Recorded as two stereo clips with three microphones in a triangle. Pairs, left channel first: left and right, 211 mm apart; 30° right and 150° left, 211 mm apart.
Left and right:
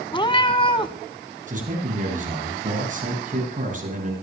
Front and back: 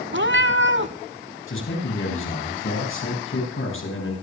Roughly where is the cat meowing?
Behind left.